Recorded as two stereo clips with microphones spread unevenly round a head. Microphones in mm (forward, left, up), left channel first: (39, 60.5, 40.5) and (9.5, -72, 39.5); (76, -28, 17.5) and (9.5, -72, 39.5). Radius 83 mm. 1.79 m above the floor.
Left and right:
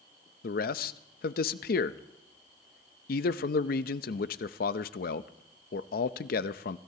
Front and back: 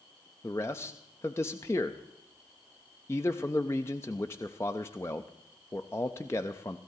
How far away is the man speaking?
About 0.5 m.